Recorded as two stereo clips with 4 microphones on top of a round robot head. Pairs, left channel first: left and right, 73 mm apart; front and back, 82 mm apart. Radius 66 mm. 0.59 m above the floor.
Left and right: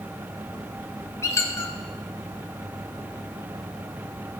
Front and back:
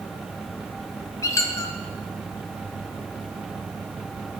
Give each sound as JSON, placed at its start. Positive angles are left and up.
{"t": 1.2, "sound": "a squeak", "azimuth_deg": 45, "distance_m": 0.6}